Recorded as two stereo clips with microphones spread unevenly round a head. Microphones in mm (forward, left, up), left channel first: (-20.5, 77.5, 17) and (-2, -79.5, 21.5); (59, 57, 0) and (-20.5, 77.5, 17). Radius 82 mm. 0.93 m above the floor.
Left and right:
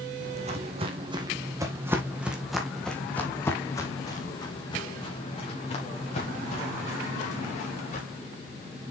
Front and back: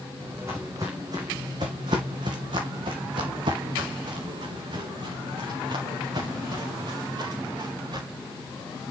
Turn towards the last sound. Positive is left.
turn(degrees=140)